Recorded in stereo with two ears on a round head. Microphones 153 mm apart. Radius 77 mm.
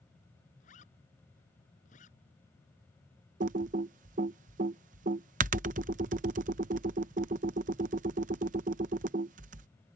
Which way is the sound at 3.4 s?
45° right (ahead or behind).